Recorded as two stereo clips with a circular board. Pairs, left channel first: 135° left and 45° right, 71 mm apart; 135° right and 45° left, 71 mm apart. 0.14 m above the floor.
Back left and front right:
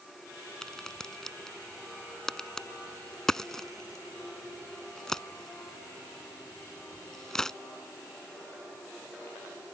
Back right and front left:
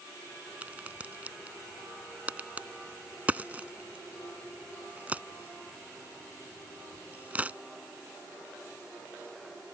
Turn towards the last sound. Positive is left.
turn(degrees=65)